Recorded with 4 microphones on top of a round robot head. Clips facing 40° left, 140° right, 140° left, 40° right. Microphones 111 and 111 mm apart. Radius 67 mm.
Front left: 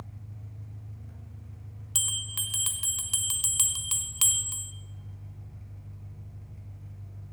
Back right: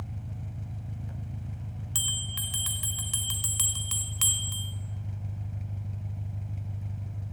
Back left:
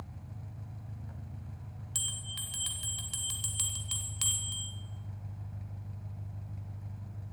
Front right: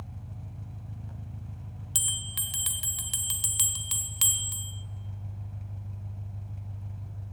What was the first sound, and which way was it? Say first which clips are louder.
An engine running: back right 6 dB, front right 3 dB; 125° right.